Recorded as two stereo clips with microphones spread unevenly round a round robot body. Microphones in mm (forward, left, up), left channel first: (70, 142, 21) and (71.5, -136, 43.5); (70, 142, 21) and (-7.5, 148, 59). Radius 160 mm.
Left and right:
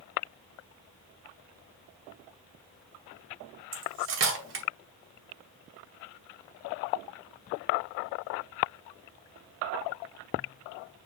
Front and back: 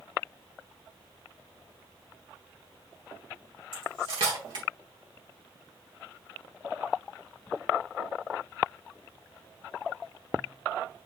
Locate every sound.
3.7 s cutlery clinking: 135° right, 0.9 m